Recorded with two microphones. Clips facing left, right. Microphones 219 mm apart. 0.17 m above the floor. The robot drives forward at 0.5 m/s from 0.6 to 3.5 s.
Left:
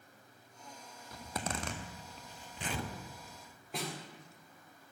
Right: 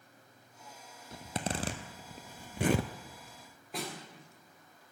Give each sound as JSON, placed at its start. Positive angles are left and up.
{"t": 1.1, "sound": "a zipper", "side_deg": -25, "distance_m": 1.1}
{"t": 3.7, "sound": "a snare drum", "side_deg": 0, "distance_m": 3.5}